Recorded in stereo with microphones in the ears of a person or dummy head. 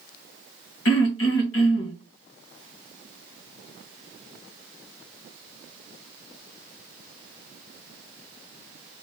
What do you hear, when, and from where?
0.8 s throat clearing: 75° left (ahead or behind), 1.3 m